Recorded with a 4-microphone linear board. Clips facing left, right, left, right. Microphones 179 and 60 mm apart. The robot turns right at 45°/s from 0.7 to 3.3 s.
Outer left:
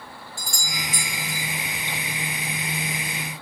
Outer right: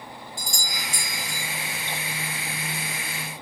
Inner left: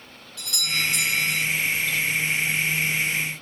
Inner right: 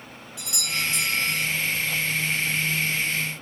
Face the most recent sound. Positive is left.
turn(degrees=-40)